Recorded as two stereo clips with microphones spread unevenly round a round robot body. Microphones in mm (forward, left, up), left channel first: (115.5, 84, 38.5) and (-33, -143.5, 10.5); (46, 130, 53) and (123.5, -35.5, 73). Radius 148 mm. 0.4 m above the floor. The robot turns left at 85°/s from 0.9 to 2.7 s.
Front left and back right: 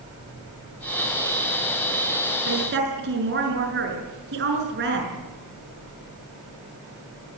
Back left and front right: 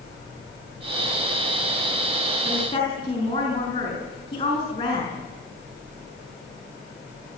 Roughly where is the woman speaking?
Behind right.